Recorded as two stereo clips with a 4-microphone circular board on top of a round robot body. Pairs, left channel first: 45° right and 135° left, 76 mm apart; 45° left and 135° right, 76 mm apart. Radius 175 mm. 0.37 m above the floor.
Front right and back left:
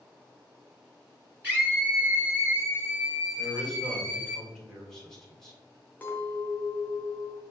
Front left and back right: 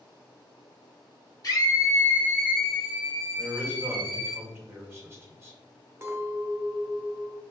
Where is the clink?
100° right, 0.9 m.